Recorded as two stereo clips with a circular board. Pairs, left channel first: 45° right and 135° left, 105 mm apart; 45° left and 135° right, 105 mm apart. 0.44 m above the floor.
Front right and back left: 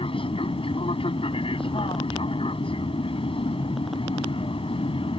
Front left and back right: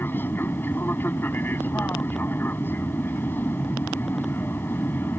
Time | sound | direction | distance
0.0 | an aircraft | 25° right | ?